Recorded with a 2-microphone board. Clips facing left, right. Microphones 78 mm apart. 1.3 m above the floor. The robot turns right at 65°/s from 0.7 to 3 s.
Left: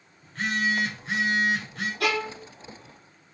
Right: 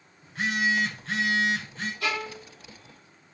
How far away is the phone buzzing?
About 7 m.